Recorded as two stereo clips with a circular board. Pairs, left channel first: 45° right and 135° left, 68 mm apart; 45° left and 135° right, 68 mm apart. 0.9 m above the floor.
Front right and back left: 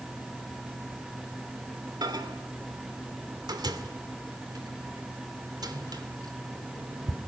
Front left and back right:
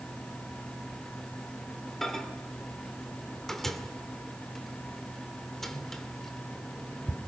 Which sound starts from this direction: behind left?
A microwave, at 2.0 s.